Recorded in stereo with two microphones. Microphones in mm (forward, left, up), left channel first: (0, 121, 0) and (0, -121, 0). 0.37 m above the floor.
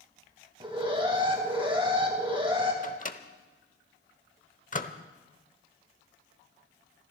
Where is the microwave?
35° left (ahead or behind), 0.8 m.